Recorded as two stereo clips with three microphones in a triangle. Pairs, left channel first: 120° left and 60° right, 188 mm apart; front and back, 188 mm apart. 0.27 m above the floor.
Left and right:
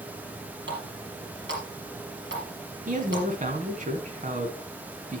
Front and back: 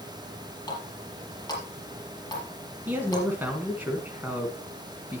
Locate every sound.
0.7 s a running tap: 70° right, 4.5 m
2.9 s a man speaking: 100° right, 2 m